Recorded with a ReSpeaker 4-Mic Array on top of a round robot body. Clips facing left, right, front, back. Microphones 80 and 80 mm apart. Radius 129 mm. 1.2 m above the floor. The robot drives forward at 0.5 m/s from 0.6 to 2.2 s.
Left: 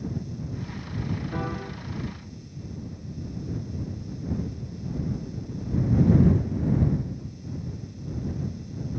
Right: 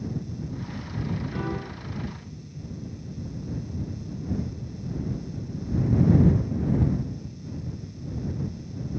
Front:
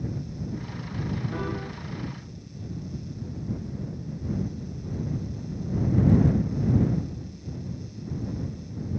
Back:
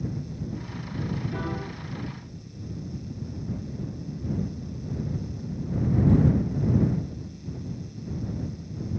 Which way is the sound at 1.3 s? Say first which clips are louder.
Even, front 1 dB; 35° left.